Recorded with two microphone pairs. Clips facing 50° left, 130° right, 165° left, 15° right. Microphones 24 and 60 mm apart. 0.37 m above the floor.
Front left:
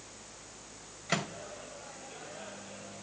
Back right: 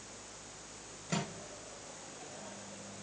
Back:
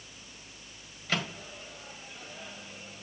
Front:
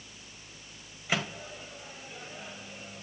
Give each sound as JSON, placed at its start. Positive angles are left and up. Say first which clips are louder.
{"t": 1.1, "sound": "a microwave", "louder": "front left 5 dB, front 1 dB", "azimuth_deg": 60, "distance_m": 1.8}